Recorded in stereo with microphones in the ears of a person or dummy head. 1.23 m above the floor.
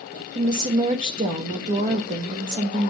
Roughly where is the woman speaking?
Right.